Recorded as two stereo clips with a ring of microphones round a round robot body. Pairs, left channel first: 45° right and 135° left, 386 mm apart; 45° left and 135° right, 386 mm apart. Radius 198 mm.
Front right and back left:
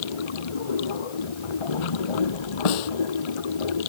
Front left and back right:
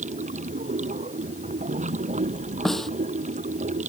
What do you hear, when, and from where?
0.0 s running water: 60° right
2.6 s a snare drum: 45° right